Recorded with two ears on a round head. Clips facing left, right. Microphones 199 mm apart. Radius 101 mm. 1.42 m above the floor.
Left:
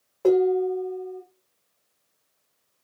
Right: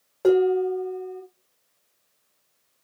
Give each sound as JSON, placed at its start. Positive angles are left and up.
{"t": 0.2, "sound": "dishes clattering", "side_deg": -15, "distance_m": 1.3}